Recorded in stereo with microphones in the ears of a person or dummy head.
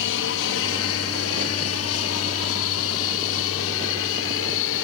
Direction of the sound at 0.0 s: 60° left (ahead or behind).